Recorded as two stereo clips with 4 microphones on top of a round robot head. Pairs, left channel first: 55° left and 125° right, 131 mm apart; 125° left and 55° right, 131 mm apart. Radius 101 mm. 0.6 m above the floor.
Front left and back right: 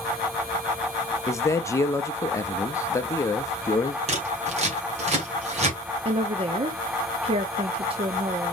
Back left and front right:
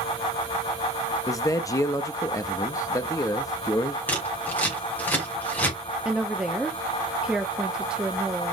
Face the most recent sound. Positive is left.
turn(degrees=-135)